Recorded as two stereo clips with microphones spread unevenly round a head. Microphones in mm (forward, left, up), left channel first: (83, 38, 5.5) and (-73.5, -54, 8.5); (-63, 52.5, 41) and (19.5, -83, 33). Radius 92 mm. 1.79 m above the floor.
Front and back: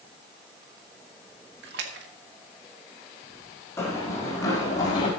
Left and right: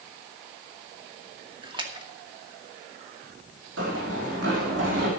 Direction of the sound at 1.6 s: 120° right.